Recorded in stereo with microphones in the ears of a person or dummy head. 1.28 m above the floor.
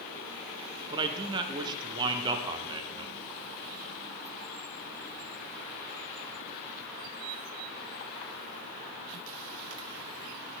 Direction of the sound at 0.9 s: 20° right (ahead or behind).